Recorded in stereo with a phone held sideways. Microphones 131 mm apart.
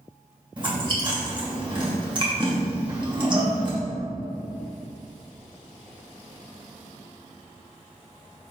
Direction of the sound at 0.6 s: 35° right (ahead or behind).